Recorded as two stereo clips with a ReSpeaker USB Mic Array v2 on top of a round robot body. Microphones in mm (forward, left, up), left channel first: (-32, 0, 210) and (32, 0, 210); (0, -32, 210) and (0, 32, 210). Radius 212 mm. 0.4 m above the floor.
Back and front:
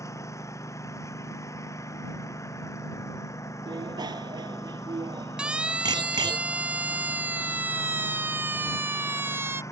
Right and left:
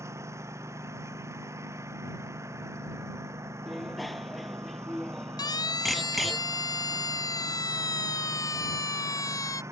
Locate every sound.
0.0 s a lawn mower: 135° left
3.7 s a bicycle bell: straight ahead
5.4 s a siren: 75° right; by 9.6 s 55° right